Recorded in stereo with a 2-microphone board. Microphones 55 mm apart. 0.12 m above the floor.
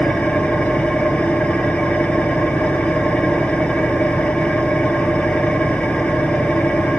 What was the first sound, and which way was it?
An engine running, 25° left (ahead or behind).